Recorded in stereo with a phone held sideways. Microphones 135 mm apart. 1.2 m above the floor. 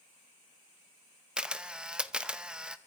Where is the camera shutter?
5° right (ahead or behind), 0.6 m.